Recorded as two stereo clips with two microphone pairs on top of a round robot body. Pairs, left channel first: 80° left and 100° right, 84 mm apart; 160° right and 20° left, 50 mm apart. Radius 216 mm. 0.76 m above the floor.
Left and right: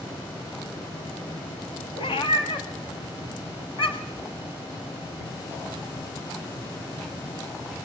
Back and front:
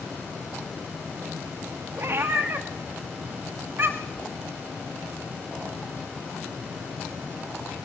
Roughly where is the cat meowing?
Ahead left.